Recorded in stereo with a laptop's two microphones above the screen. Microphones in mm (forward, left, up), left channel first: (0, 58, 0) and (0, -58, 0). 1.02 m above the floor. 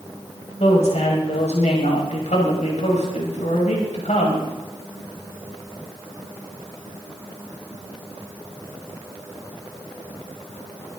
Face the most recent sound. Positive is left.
turn(degrees=85)